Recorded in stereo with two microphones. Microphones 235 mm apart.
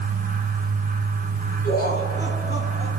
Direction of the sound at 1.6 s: 40° left (ahead or behind).